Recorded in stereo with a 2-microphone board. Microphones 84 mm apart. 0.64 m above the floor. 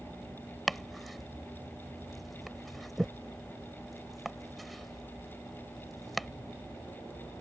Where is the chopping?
Centre (ahead or behind).